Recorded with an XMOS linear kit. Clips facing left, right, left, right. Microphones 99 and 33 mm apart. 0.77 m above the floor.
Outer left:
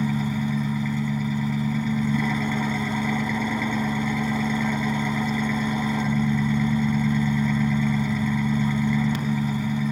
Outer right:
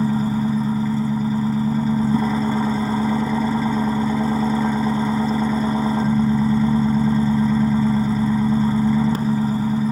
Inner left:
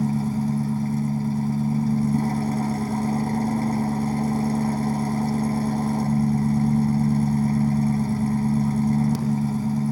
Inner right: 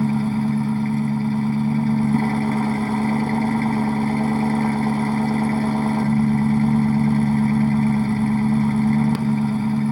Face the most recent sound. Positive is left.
turn(degrees=-40)  # may be behind; listen again after turning